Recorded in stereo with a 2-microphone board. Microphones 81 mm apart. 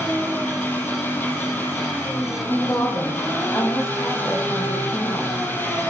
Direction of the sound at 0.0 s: 25° left (ahead or behind).